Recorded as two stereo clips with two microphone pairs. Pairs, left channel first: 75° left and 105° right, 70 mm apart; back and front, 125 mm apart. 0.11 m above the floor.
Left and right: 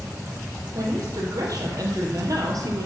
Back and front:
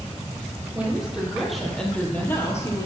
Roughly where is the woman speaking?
Right.